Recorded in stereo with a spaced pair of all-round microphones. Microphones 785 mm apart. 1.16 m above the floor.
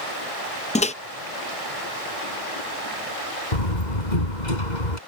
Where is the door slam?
65° left (ahead or behind).